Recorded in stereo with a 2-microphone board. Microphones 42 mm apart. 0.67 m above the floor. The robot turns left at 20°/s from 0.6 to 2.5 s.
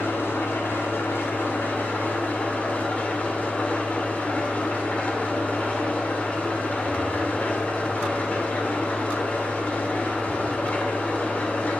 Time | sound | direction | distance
0.0 | an engine running | 80° left | 1.1 m